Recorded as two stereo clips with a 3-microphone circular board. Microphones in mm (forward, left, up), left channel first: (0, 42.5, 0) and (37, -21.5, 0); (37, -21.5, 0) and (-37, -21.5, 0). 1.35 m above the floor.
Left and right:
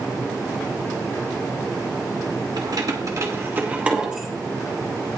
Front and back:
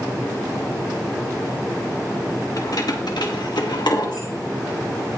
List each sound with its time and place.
2.6 s keys jangling: 40° right, 1.8 m; by 4.3 s 25° left, 2 m